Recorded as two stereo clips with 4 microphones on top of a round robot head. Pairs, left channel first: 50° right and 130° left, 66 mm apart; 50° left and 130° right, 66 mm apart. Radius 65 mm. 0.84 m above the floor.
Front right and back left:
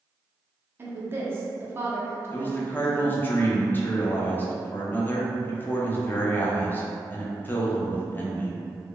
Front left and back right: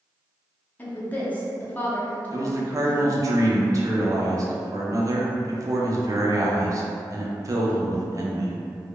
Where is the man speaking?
105° right, 0.5 m.